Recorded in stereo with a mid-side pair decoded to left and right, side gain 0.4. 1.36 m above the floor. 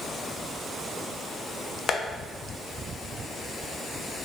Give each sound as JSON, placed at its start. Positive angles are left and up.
{"t": 1.9, "sound": "tapping", "azimuth_deg": 55, "distance_m": 0.5}